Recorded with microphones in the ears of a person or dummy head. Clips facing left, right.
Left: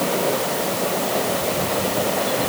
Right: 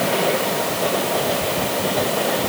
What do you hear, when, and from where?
Only background noise.